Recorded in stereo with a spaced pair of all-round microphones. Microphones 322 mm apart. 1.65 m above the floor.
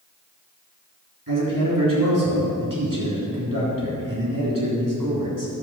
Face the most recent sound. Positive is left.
turn(degrees=-75)  # may be behind; listen again after turning